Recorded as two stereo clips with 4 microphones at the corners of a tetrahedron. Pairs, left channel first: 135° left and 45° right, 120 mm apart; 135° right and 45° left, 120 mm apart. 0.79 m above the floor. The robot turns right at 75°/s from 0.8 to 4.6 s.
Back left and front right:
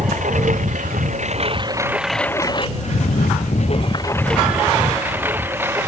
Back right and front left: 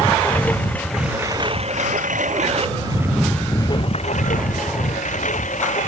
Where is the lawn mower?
60° right; by 5.9 s 115° right.